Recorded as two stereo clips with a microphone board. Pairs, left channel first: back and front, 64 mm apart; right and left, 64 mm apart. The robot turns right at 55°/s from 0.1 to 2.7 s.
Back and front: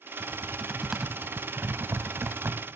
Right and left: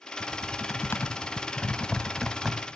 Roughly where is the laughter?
I don't hear laughter.